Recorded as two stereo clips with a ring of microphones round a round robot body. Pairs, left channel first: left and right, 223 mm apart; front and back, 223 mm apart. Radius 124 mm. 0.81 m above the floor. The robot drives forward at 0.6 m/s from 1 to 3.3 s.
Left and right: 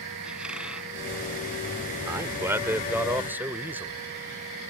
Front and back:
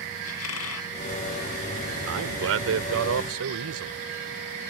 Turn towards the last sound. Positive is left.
turn(degrees=-170)